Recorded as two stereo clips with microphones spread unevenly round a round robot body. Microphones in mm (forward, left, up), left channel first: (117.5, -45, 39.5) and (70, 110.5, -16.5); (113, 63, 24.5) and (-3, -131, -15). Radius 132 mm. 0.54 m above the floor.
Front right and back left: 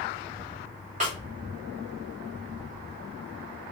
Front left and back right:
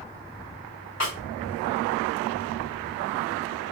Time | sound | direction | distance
1.0 | a snare drum | 90° left | 2 m